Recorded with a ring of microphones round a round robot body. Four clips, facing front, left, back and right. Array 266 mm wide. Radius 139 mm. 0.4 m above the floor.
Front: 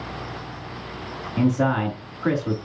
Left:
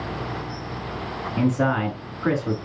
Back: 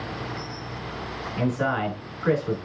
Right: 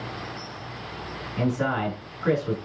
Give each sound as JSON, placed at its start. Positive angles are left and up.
{"t": 1.4, "sound": "a man speaking", "azimuth_deg": 40, "distance_m": 4.5}